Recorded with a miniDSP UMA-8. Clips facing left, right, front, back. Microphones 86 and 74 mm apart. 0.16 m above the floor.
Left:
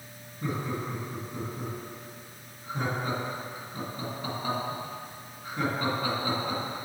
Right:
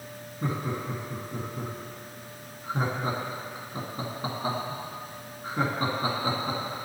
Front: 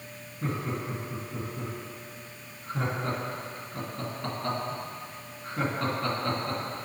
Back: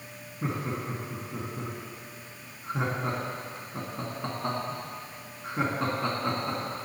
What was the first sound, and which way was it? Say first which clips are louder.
Laughter: right 1 dB, even; 120° right.